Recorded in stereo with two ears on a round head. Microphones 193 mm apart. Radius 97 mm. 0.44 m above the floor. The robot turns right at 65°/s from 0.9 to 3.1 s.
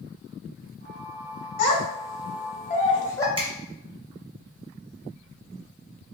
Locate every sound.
1.6 s a child speaking: 60° left (ahead or behind), 1.4 m; by 3.3 s 15° left (ahead or behind), 1.4 m
3.4 s a finger snap: 25° right (ahead or behind), 1.3 m